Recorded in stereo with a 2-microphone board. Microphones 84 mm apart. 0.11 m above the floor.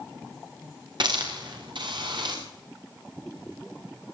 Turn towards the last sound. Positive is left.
turn(degrees=-65)  # may be behind; listen again after turning